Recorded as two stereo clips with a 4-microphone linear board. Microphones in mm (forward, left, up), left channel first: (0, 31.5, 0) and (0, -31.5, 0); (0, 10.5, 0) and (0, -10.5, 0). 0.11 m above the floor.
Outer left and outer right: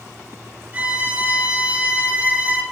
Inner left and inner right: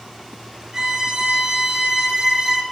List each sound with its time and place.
0.7 s a violin: 25° right (ahead or behind), 0.6 m